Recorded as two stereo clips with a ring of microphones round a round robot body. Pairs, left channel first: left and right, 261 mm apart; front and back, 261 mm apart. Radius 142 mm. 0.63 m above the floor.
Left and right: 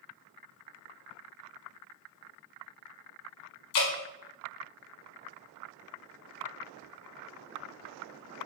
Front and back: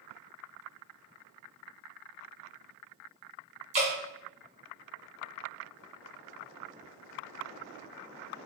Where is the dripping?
110° left, 2 m.